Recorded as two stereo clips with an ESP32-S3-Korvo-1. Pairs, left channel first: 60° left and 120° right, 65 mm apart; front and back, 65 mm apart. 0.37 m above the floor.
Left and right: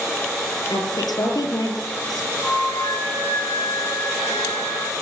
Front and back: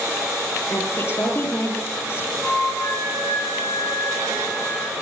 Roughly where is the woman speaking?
Ahead left.